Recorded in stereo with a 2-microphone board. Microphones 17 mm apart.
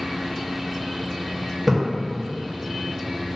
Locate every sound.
1.7 s a splash: 20° right (ahead or behind), 0.9 m